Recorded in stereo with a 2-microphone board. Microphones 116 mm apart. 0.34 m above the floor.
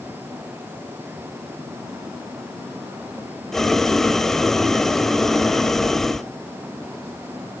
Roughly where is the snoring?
I don't hear snoring.